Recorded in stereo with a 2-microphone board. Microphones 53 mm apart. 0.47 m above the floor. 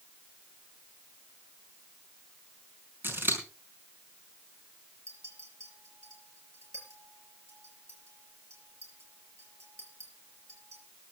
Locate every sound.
3.0 s scissors: 45° right (ahead or behind), 5 m
5.1 s a clink: 60° right (ahead or behind), 5.5 m